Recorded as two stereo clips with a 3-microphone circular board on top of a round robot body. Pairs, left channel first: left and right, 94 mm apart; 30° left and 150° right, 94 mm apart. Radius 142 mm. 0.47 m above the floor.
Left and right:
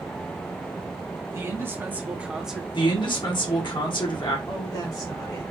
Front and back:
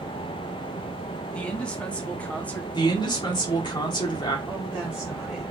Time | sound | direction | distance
1.3 | a man speaking | 45° right | 1.7 m
2.7 | a man speaking | 65° left | 1.8 m
4.5 | a woman speaking | 125° left | 1.5 m